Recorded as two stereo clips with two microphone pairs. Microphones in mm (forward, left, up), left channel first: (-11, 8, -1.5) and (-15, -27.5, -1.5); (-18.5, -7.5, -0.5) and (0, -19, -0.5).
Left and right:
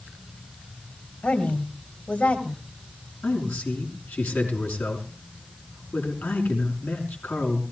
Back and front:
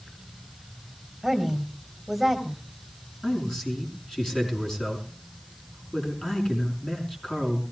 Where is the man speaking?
85° left, 5 m.